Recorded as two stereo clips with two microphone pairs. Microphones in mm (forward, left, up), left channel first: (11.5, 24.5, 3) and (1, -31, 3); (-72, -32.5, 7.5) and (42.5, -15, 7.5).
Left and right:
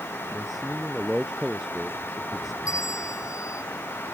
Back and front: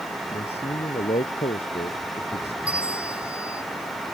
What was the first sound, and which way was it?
A man speaking, 175° left.